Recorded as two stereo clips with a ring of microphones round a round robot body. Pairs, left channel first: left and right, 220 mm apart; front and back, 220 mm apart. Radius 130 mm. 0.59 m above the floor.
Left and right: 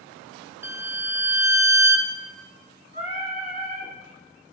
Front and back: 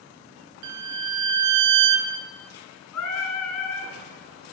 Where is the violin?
170° right, 0.7 m.